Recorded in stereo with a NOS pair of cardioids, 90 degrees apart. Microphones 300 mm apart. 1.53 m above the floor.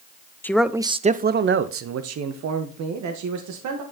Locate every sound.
0.4 s a man speaking: 5° left, 0.8 m; by 3.8 s 75° right, 2.5 m